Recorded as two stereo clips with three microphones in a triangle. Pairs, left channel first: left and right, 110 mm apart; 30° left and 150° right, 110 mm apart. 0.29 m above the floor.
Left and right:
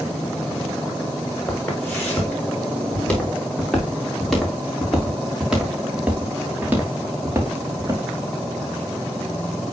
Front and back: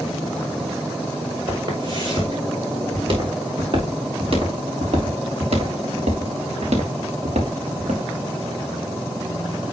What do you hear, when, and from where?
1.5 s footsteps: 160° left, 4.5 m; by 8.0 s 150° right, 3 m